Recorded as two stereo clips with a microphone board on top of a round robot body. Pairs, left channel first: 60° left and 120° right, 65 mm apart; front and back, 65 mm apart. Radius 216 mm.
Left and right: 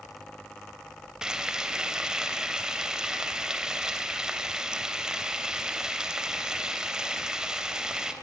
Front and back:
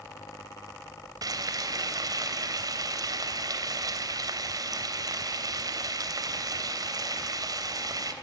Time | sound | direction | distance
1.2 | frying | 160° left | 3 m